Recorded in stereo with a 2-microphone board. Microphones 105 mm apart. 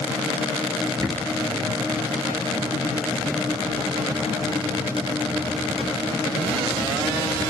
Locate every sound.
0.9 s a bird: 45° right (ahead or behind), 1.4 m